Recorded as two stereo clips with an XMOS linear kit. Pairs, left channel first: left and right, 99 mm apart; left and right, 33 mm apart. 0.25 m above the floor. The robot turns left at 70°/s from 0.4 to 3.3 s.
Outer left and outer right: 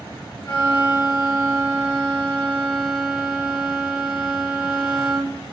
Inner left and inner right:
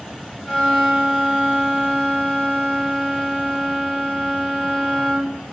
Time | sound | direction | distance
0.5 | a violin | 80° right | 1.9 m